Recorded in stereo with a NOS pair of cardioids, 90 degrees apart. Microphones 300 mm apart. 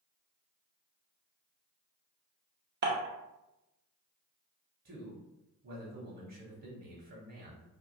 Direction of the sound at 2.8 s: 35° right.